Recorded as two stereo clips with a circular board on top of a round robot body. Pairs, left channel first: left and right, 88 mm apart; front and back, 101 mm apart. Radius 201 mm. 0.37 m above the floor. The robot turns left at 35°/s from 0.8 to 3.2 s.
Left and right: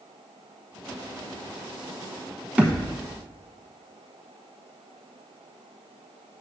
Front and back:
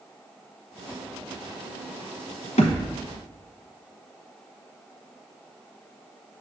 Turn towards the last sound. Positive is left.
turn(degrees=-35)